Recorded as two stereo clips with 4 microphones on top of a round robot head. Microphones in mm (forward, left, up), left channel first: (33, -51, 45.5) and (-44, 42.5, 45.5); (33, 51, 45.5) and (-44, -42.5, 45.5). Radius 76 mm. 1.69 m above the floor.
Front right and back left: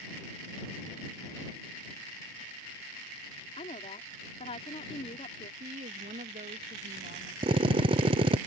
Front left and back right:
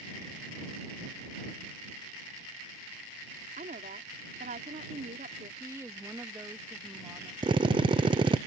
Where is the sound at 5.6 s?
160° left.